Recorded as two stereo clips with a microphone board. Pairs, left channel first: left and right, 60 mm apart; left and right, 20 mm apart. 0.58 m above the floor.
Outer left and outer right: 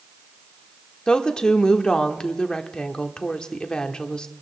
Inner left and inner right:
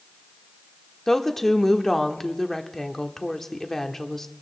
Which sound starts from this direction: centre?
A woman speaking, at 1.1 s.